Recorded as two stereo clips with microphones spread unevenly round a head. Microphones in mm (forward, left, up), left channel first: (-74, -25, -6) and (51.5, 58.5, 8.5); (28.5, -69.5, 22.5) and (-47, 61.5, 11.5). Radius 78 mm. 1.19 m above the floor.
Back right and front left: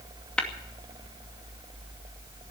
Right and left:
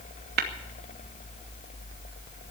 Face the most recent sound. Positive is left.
turn(degrees=130)